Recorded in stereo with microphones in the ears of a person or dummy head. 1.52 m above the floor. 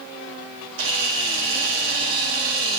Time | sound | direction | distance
0.8 | a camera shutter | 75° right (ahead or behind) | 2.0 m